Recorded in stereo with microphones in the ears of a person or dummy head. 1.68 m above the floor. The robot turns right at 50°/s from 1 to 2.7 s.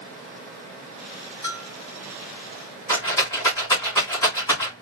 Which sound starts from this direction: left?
A bell, at 1.4 s.